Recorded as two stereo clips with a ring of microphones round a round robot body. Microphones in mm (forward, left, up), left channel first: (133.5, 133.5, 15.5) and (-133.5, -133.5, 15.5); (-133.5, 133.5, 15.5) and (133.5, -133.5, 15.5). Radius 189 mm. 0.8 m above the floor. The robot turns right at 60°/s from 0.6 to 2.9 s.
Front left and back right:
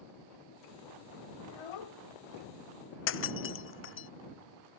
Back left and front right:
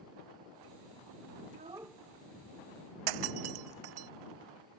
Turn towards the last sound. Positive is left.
turn(degrees=-15)